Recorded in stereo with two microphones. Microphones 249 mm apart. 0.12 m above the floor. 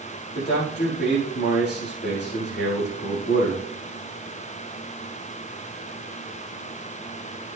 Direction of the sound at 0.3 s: 45° left (ahead or behind).